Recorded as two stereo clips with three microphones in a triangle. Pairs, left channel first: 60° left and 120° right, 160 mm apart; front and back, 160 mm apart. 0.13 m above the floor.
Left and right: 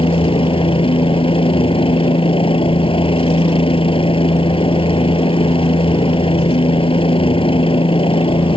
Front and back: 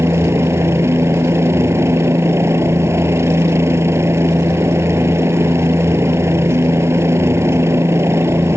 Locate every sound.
0.0 s a helicopter: 110° left